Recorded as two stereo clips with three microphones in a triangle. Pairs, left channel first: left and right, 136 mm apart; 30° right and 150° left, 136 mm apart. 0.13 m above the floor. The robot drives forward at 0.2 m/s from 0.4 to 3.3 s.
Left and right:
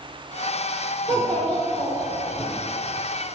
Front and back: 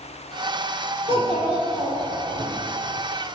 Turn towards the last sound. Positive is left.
turn(degrees=170)